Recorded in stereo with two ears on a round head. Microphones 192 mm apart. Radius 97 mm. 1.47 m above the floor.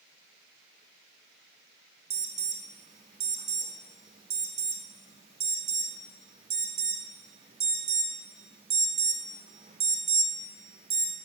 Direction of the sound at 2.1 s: 25° right (ahead or behind).